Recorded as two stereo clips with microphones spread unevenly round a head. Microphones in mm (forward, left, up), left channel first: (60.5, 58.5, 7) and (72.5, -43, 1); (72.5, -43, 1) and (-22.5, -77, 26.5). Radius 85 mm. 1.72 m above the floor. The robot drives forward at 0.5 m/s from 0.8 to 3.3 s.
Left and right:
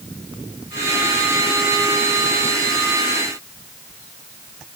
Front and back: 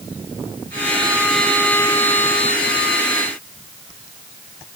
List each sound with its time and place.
Only background noise.